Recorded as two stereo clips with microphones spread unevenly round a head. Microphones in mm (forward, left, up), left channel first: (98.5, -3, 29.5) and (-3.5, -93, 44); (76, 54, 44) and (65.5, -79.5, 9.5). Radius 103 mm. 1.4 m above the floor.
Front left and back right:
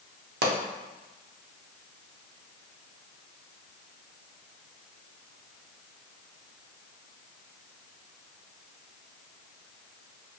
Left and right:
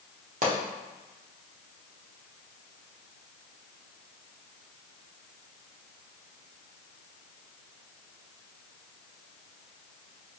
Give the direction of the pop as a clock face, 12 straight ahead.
5 o'clock.